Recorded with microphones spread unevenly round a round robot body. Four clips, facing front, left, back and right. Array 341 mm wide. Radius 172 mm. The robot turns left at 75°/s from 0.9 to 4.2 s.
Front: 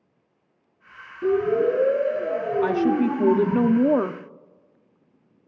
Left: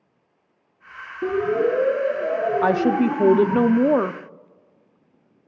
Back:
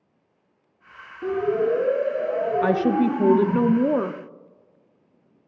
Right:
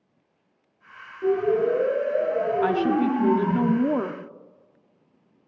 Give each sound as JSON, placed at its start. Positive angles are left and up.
{"t": 1.2, "sound": "a siren", "azimuth_deg": 85, "distance_m": 6.5}
{"t": 2.6, "sound": "a woman speaking", "azimuth_deg": 125, "distance_m": 0.6}